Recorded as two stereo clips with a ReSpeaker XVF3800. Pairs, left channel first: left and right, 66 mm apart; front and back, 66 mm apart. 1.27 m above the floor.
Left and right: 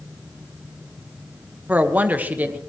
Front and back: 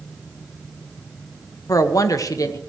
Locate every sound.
1.7 s a woman speaking: 25° right, 1.4 m